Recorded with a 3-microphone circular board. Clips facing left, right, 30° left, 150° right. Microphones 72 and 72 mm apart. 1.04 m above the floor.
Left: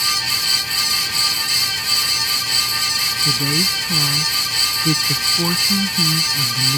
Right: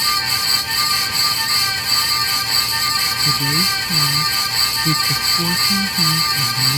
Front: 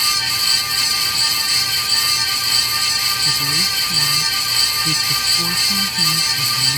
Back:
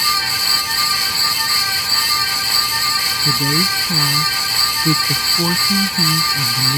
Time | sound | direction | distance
3.2 | a woman speaking | 160° left | ?